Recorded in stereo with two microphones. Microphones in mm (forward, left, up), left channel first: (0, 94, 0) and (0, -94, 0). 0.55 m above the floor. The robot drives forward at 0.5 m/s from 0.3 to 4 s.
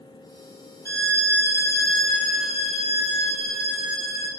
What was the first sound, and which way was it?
A violin, 65° right (ahead or behind).